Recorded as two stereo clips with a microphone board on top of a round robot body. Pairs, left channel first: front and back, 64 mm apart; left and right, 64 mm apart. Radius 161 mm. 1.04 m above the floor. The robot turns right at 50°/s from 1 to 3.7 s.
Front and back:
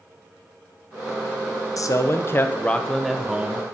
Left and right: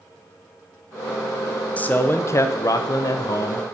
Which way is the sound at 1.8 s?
25° left.